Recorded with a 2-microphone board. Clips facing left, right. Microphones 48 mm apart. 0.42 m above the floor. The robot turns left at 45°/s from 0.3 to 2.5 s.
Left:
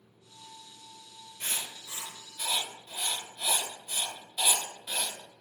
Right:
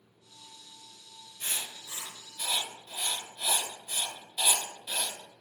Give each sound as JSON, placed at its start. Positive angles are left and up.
{"t": 1.4, "sound": "writing", "side_deg": 45, "distance_m": 0.9}